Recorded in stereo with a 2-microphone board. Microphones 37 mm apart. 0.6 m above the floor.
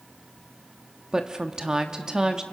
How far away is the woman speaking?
About 1.0 m.